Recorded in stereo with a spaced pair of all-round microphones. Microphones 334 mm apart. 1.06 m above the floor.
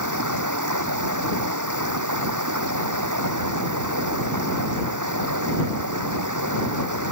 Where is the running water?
65° right (ahead or behind).